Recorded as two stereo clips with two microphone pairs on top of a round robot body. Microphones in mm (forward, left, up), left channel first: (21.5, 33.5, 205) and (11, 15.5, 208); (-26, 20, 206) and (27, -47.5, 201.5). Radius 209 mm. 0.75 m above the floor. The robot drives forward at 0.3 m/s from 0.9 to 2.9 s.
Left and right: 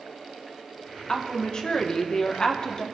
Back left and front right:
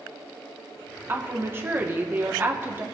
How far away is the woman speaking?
About 3 m.